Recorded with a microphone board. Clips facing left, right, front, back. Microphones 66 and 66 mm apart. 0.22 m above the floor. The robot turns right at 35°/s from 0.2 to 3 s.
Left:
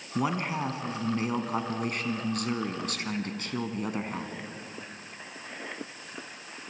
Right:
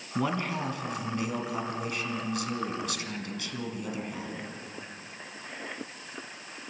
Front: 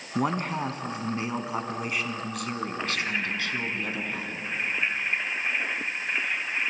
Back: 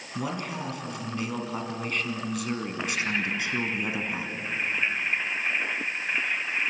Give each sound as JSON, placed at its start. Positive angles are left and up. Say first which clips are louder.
{"t": 0.1, "sound": "a man speaking", "louder": "left 1 dB, front 5 dB", "azimuth_deg": 15, "distance_m": 1.9}